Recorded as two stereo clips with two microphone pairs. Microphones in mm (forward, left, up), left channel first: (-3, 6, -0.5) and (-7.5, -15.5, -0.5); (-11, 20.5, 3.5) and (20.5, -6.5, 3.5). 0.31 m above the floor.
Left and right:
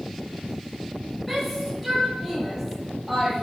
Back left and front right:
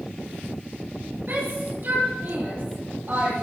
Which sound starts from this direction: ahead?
A shout, at 1.3 s.